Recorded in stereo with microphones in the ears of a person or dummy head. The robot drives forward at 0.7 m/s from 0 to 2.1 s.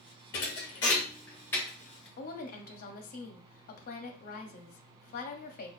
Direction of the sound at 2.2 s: 45° left (ahead or behind).